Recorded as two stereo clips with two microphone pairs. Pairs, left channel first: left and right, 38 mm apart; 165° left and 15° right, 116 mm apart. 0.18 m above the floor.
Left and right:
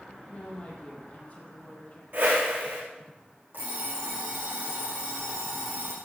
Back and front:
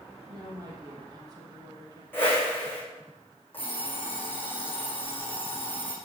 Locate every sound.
0.3 s a woman speaking: 35° left, 5.5 m
2.1 s a whoosh: 125° right, 5.5 m
3.5 s an alarm clock: 125° right, 5.5 m